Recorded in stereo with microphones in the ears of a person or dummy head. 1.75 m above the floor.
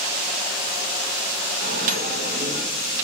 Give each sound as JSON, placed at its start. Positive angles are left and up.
{"t": 1.6, "sound": "a microwave", "side_deg": -50, "distance_m": 0.9}